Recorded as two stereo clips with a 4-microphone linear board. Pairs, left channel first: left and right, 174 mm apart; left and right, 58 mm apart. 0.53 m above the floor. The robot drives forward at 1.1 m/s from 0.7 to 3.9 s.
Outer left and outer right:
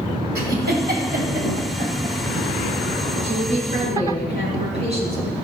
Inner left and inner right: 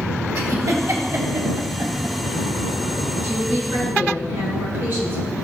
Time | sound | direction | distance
0.3 | a giggle | 65° right (ahead or behind) | 2 m
3.2 | a woman speaking | 45° right (ahead or behind) | 4.5 m